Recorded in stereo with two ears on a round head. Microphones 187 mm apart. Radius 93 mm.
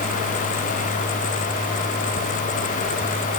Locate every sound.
Only background noise.